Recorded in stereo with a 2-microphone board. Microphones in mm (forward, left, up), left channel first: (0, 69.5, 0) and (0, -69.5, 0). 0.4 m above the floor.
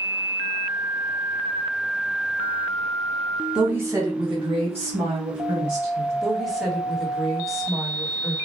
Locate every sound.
3.5 s a woman speaking: 5° right (ahead or behind), 1.1 m; by 6.1 s 60° right (ahead or behind), 3 m
6.2 s a woman speaking: centre (ahead or behind), 1.3 m